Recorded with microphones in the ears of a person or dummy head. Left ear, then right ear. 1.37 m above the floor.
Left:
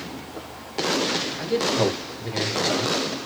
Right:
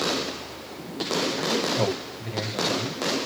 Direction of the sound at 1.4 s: 5° right (ahead or behind).